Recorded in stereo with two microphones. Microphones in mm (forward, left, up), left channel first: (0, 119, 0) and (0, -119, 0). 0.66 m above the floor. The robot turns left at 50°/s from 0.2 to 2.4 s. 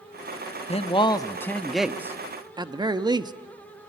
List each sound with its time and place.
0.7 s a man speaking: 55° left, 0.9 m; by 3.3 s 30° right, 0.9 m